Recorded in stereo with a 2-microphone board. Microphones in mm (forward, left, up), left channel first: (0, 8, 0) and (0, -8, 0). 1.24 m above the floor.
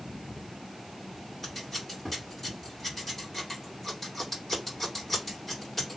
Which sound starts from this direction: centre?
Scissors, at 1.4 s.